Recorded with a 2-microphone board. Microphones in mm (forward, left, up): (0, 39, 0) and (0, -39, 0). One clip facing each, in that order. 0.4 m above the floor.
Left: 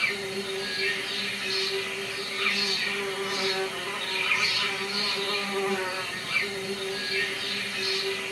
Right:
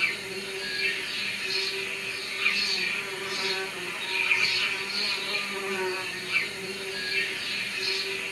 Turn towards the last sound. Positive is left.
turn(degrees=60)  # may be behind; listen again after turning